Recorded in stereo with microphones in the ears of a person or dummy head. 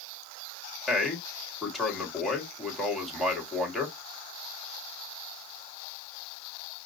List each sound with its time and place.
0.9 s a man speaking: 5° left (ahead or behind), 1.8 m